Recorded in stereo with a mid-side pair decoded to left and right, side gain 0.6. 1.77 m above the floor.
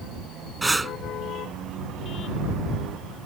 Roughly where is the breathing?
Ahead.